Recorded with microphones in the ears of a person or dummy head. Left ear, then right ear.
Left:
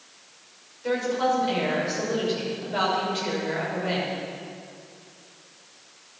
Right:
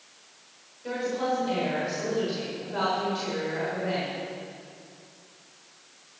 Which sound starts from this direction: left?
A woman speaking, at 0.8 s.